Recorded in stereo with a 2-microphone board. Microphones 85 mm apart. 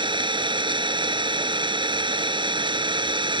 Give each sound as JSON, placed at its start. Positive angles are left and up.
{"t": 0.0, "sound": "an engine running", "side_deg": -75}